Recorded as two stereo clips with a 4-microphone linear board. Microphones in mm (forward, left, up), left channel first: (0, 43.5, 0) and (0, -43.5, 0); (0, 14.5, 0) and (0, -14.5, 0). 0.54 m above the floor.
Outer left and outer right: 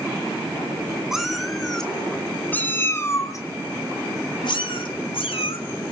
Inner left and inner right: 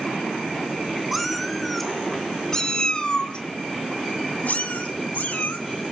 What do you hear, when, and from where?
1.1 s a cat meowing: 5° right (ahead or behind), 2.5 m; by 5.6 s 80° left, 2.5 m